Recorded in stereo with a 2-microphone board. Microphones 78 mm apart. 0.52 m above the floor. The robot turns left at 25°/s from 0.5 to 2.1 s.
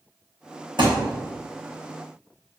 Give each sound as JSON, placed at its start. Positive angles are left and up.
{"t": 0.8, "sound": "a thud", "side_deg": -80, "distance_m": 3.0}